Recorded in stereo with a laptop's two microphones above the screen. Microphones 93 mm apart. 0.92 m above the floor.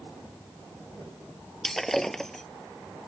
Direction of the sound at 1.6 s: 5° left (ahead or behind).